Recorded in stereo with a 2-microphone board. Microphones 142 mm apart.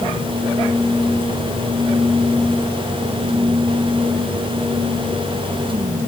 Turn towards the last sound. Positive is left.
No sound to turn to.